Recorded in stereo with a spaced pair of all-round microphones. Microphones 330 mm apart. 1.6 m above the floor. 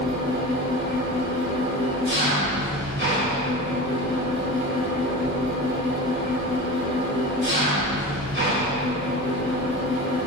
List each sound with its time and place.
0.0 s an engine running: 35° right (ahead or behind), 1.7 m